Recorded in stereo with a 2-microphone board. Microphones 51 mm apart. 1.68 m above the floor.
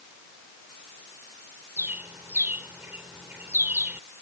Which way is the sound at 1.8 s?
35° right (ahead or behind).